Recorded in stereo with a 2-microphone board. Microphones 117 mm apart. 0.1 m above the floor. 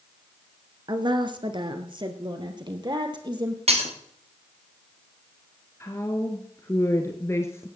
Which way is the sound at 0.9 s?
40° right (ahead or behind).